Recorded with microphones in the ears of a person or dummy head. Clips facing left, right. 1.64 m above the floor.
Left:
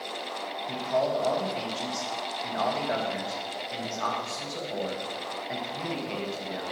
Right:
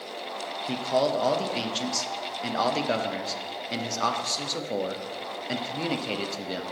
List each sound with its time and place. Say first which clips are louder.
0.7 s a man speaking: right 2 dB; 50° right (ahead or behind), 0.8 m